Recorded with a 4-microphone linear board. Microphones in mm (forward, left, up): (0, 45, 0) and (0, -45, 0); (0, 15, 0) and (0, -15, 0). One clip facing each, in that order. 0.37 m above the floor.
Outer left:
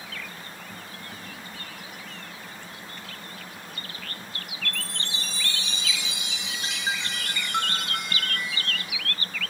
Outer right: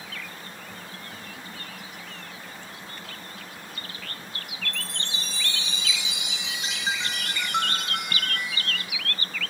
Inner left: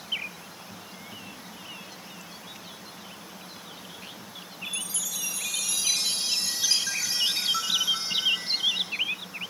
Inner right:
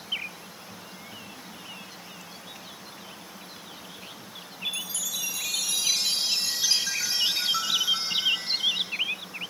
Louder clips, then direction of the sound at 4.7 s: Outer left 1 dB, inner right 3 dB; 20° right (ahead or behind).